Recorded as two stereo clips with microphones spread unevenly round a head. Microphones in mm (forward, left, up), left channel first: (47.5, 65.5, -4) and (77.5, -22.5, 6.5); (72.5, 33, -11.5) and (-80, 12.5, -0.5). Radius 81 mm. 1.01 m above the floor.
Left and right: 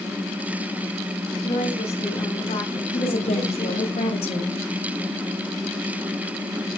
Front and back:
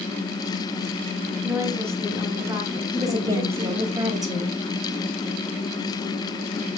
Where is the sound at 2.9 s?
120° left, 7 m.